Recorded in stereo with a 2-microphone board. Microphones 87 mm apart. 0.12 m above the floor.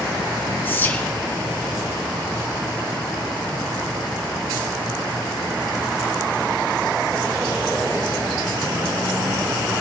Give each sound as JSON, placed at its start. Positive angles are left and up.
{"t": 0.7, "sound": "whispering", "side_deg": 25, "distance_m": 1.5}